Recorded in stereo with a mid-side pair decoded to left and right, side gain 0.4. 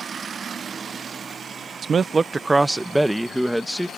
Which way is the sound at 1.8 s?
60° right.